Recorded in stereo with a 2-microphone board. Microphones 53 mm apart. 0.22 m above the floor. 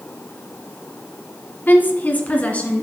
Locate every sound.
1.7 s a woman speaking: 40° left (ahead or behind), 1.5 m; by 2.8 s 25° left (ahead or behind), 2.5 m